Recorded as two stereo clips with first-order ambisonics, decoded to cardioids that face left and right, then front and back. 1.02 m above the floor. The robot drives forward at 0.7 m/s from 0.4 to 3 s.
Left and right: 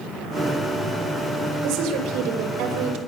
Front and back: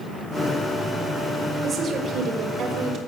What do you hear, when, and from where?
1.6 s a woman speaking: 115° right, 5 m; by 3.0 s 125° right, 5.5 m